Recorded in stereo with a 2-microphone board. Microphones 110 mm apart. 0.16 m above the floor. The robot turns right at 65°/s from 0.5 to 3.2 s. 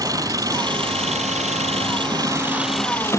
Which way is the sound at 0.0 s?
150° right.